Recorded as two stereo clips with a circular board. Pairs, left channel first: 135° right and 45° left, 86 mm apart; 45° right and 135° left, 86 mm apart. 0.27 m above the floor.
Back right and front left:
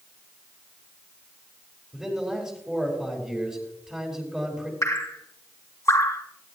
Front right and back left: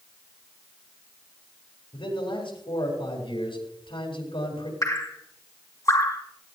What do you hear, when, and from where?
1.9 s a man speaking: 35° right, 6.5 m
4.8 s dripping: 85° right, 3 m